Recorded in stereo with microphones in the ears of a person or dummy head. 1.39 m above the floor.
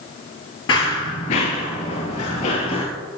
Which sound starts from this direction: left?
Running footsteps, at 0.7 s.